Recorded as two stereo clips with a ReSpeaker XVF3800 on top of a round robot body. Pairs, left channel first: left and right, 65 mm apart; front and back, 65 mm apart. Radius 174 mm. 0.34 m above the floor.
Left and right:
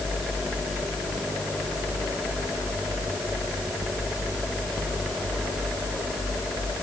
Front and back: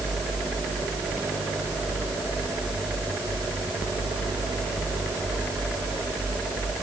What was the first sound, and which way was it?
Only background noise.